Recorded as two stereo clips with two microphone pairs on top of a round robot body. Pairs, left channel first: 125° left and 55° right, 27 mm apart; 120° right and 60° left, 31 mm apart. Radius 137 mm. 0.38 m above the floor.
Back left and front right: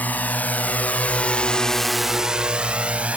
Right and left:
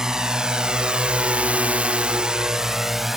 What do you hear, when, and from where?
0.0 s a drone: 125° left; by 3.2 s 25° right